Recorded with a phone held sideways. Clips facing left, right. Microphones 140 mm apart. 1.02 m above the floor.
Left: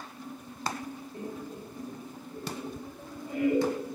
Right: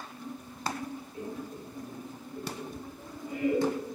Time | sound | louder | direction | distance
1.1 | laughter | left 1 dB | 55° left (ahead or behind) | 1.8 m